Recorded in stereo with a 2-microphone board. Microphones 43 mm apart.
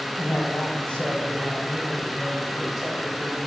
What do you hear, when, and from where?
0.2 s a man speaking: 40° left (ahead or behind), 2 m; by 3.4 s 10° right (ahead or behind), 2 m